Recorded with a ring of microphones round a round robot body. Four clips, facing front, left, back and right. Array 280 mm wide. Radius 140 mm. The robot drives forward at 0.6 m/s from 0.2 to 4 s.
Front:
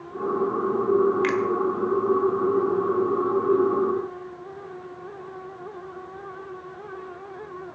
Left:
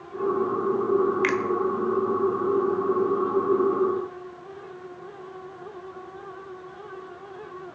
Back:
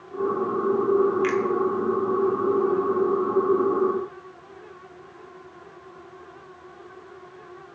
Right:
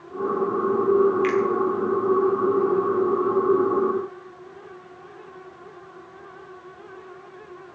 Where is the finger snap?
50° left, 1.3 m; by 1.4 s 55° left, 1.3 m.